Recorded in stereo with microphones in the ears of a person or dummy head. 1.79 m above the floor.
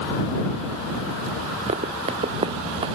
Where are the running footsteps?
40° right (ahead or behind); by 3.0 s 30° right (ahead or behind).